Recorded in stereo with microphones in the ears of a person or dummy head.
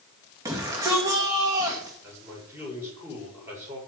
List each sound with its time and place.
0.5 s a shout: 15° right (ahead or behind), 2 m
2.0 s a man speaking: 15° right (ahead or behind), 7.5 m